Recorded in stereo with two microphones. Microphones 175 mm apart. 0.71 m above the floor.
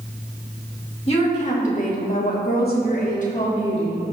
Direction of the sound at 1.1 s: 35° left (ahead or behind).